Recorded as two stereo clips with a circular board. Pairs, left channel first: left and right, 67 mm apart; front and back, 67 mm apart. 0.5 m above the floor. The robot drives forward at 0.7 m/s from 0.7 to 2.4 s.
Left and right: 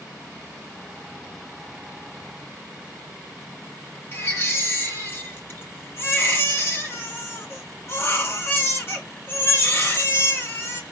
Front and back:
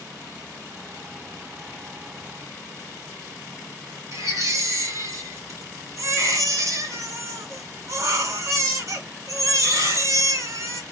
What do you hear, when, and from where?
4.1 s a baby crying: 140° left, 1.8 m